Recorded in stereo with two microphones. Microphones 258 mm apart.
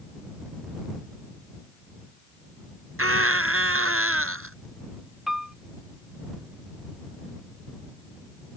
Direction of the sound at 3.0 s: 55° right (ahead or behind).